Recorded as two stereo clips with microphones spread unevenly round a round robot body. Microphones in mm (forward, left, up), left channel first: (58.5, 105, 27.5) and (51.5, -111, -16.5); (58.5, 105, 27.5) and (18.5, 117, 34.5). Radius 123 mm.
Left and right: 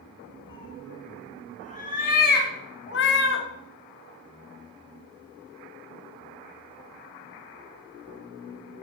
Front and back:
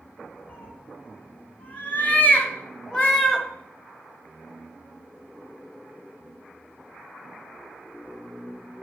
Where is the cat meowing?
25° left, 2.5 m; by 3.5 s 65° left, 1.4 m.